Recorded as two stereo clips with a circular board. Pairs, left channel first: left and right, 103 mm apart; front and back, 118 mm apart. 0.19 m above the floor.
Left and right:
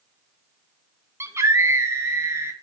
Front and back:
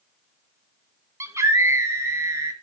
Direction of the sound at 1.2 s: 130° right.